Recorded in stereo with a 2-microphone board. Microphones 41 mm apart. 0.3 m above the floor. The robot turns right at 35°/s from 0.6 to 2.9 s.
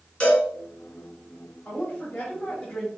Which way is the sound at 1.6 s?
120° left.